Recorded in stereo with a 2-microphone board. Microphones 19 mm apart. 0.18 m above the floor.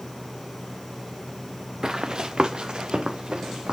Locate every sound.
1.8 s running footsteps: 40° right (ahead or behind), 0.7 m; by 3.7 s 65° right (ahead or behind), 2 m